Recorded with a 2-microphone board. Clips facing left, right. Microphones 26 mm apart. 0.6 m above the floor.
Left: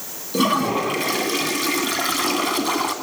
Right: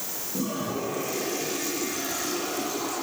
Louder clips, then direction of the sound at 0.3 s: Left 11 dB; 85° left.